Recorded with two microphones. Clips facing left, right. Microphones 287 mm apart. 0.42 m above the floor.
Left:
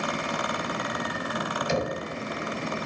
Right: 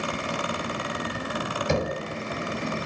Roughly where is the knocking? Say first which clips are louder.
Right 2 dB; right.